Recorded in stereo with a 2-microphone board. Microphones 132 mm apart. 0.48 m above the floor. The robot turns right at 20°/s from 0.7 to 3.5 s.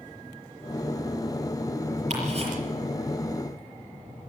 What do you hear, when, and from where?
2.1 s ticking: 55° right (ahead or behind), 6.5 m; by 2.5 s 45° right (ahead or behind), 6.5 m